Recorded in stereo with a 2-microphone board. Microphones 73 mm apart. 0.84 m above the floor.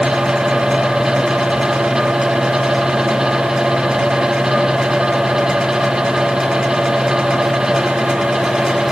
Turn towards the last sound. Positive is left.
No sound to turn to.